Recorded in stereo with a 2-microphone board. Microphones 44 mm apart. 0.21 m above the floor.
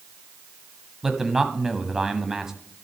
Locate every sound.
1.0 s a man speaking: 10° right (ahead or behind), 1.1 m